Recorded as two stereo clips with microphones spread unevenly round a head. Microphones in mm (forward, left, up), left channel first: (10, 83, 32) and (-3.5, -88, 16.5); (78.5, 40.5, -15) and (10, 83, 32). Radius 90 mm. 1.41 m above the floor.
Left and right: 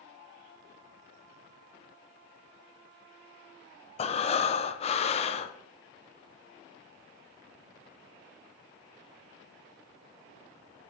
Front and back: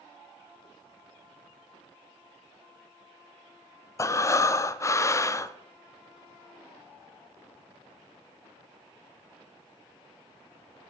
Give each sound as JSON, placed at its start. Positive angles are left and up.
{"t": 4.0, "sound": "breathing", "azimuth_deg": 25, "distance_m": 0.6}